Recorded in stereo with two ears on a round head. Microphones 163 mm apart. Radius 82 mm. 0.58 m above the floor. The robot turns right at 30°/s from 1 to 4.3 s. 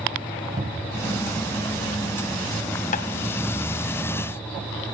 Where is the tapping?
45° left (ahead or behind), 0.8 m; by 3.0 s 40° left (ahead or behind), 0.8 m.